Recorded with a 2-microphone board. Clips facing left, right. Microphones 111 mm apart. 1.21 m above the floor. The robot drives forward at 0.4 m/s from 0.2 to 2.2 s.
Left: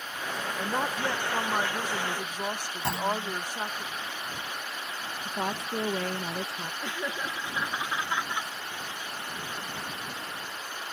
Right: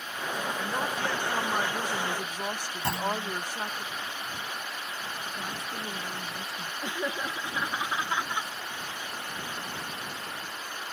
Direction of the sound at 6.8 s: 15° right (ahead or behind).